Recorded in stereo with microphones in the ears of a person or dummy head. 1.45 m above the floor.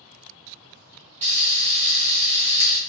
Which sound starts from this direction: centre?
Frying, at 1.2 s.